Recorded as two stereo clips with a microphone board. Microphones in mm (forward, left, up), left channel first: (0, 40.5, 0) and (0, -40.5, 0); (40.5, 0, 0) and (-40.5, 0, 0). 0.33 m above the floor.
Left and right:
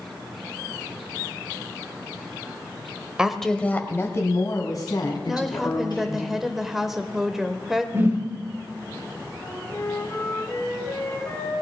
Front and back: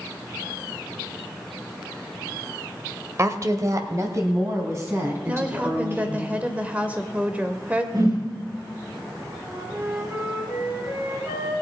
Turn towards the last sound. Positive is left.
turn(degrees=140)